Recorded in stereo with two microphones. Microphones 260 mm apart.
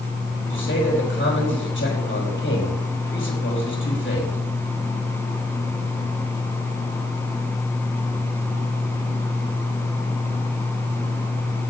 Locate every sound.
0.5 s a man speaking: 45° left (ahead or behind), 4.5 m